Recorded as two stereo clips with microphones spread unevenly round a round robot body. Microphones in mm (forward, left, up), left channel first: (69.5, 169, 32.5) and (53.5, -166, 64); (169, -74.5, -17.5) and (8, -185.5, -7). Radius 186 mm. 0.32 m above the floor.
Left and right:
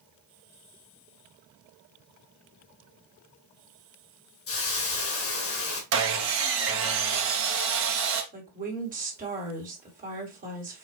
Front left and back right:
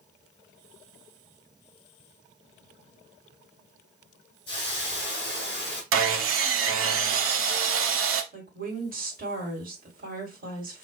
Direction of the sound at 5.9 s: 150° right.